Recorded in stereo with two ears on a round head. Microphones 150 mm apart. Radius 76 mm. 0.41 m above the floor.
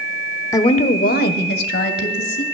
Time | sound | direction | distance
0.5 | a woman speaking | 20° left (ahead or behind) | 0.8 m